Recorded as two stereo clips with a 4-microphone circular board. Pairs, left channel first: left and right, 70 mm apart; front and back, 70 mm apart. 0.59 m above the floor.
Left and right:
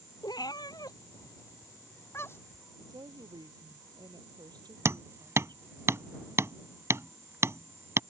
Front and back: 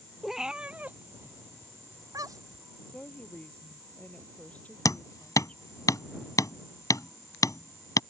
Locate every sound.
0.2 s a cat meowing: 90° left; by 2.6 s 150° left
2.9 s a woman speaking: 70° right
4.8 s hammering: 40° right